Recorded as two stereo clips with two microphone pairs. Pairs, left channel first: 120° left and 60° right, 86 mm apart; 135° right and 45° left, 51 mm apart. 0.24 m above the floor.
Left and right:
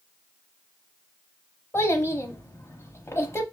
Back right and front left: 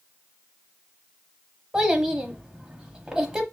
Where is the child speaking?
115° left, 0.8 m.